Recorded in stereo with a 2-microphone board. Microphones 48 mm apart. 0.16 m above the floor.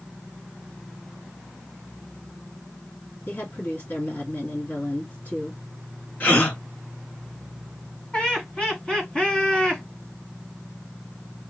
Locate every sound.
3.3 s a woman speaking: 55° left (ahead or behind), 2.5 m
6.2 s a gasp: 45° left (ahead or behind), 2 m
8.1 s laughter: 25° left (ahead or behind), 1.7 m